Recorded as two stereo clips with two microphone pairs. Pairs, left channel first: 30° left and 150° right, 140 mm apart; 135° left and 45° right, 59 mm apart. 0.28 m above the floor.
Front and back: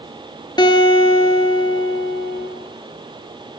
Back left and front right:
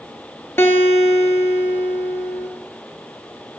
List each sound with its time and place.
0.6 s a guitar: 90° left, 0.9 m